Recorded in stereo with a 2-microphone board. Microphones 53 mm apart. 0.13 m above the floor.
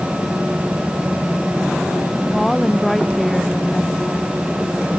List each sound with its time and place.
2.3 s a woman speaking: 5° left (ahead or behind)